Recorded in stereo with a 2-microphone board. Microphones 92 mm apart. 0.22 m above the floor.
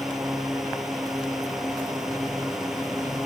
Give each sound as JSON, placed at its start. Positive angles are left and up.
{"t": 0.0, "sound": "a drone", "side_deg": -5}